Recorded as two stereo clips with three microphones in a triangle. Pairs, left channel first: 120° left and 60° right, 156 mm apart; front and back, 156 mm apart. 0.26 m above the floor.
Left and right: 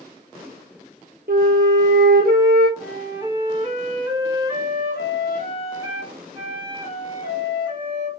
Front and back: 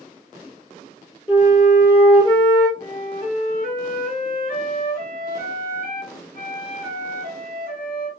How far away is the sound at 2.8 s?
About 2.5 m.